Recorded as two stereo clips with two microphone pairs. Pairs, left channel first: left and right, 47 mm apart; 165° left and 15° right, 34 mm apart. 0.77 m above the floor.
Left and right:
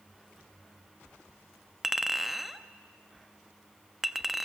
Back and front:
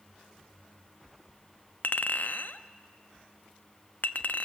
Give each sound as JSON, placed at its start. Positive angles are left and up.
{"t": 1.8, "sound": "a clink", "azimuth_deg": -175, "distance_m": 0.6}